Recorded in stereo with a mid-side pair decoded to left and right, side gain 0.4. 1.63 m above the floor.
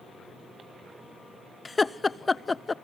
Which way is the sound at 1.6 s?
25° left.